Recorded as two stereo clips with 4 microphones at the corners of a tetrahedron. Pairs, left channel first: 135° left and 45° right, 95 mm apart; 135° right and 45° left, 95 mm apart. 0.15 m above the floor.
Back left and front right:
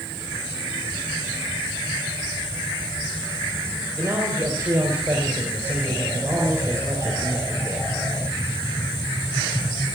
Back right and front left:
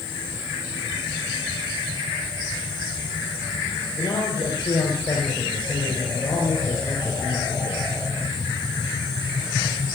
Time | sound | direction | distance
4.0 | a man speaking | 100° right | 4.5 m